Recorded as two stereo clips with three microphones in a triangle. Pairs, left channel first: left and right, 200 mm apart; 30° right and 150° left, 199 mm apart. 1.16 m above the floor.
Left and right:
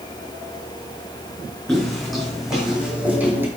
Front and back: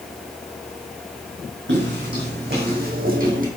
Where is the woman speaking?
No woman speaking in this recording.